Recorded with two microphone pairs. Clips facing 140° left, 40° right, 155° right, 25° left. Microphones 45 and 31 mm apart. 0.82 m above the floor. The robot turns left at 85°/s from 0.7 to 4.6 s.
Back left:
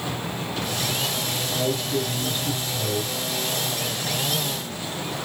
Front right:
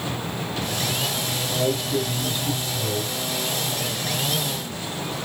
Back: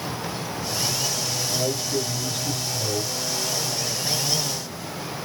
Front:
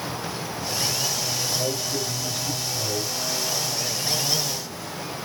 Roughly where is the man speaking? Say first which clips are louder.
Front right 2 dB, back 1 dB; right.